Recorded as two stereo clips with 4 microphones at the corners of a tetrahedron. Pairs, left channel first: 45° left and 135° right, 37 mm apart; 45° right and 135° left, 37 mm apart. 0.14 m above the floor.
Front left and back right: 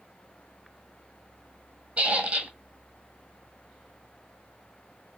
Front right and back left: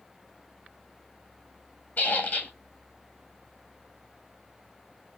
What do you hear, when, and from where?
2.0 s a squeak: 85° right, 1.0 m